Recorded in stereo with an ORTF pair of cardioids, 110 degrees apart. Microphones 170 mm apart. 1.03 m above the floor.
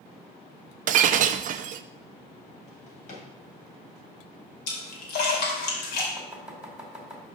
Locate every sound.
0.9 s breaking glass: 50° right, 0.5 m
2.7 s a drawer: 45° left, 3 m
4.7 s a splash: 70° left, 2.5 m
6.2 s chopping: 5° right, 2.5 m